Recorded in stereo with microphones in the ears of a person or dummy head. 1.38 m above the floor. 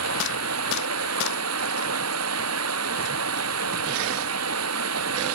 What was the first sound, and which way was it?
Running water, 85° right.